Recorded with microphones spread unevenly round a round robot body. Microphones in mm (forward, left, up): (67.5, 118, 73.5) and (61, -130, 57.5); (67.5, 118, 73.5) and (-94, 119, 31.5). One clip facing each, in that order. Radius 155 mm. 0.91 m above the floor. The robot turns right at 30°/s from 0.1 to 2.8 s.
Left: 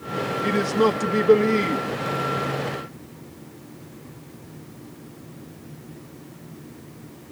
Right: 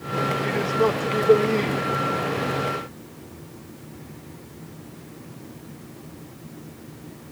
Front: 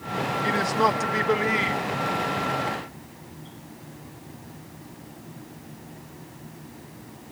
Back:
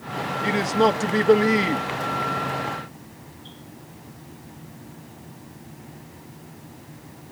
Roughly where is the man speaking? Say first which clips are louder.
Left 3 dB, back 5 dB; behind left.